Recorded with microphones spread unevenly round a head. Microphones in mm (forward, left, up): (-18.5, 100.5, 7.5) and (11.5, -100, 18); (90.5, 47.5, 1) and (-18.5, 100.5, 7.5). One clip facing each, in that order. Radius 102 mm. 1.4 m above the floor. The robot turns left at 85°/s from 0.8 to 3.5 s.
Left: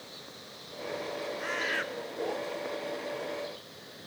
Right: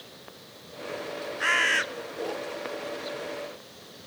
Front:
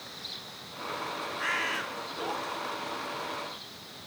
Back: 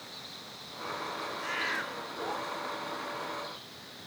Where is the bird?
75° right, 0.7 m; by 1.8 s 115° right, 0.7 m.